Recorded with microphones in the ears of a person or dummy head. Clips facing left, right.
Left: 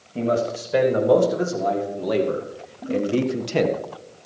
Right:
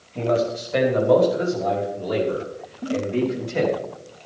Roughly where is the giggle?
Centre.